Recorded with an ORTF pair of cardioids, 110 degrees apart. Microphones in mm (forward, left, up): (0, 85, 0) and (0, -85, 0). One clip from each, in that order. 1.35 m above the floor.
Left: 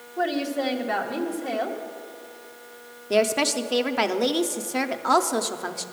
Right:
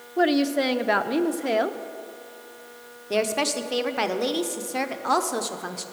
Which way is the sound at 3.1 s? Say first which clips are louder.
Left 3 dB; 10° left.